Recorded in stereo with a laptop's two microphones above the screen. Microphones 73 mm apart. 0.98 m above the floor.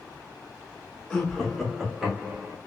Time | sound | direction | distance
1.1 | laughter | 10° left (ahead or behind) | 1.4 m